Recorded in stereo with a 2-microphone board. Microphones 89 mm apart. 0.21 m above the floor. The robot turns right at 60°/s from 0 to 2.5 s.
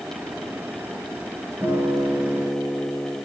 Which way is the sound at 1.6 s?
60° right.